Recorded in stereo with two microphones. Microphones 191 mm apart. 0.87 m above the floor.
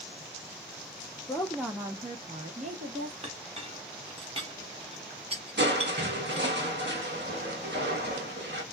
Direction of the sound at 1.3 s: 15° left (ahead or behind).